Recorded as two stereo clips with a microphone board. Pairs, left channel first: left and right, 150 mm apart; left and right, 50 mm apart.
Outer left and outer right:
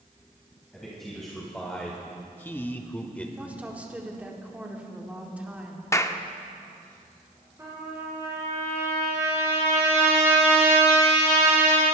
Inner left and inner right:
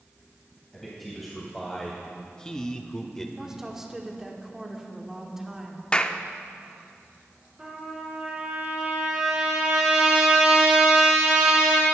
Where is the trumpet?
20° right (ahead or behind), 5.5 m.